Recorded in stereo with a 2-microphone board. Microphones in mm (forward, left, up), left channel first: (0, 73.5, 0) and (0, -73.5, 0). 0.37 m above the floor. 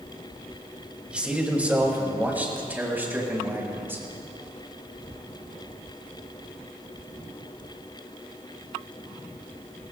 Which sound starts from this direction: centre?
A man speaking, at 1.1 s.